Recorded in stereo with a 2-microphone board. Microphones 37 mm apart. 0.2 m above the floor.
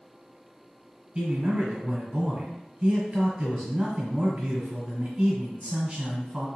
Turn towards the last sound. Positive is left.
turn(degrees=-20)  # may be behind; listen again after turning